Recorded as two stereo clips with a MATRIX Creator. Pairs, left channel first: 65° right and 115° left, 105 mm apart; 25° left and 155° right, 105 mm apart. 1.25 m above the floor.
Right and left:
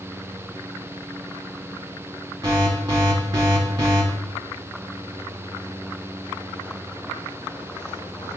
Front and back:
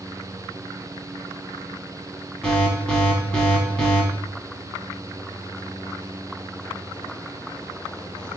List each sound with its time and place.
2.4 s an alarm: 90° left, 1.3 m